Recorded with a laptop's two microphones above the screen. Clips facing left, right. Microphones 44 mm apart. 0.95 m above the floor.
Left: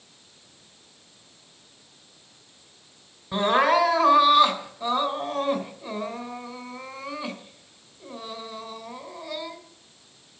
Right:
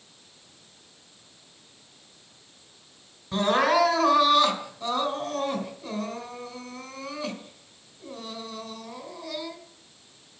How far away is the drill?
I don't hear a drill.